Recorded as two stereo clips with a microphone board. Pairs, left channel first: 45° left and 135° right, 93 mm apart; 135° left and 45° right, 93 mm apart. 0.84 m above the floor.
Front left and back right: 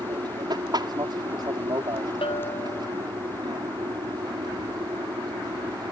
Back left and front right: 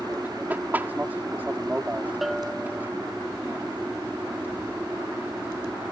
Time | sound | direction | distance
0.0 | an aircraft | 110° right | ?
2.2 | a bell | 45° left | ?